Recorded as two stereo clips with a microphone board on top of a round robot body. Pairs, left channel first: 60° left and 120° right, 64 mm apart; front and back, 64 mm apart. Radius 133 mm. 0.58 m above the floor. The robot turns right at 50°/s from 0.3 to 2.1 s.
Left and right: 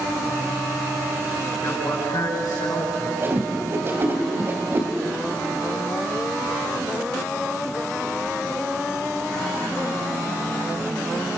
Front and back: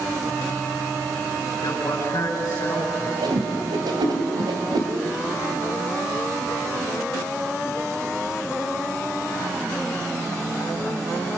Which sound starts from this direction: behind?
A whoosh, at 3.2 s.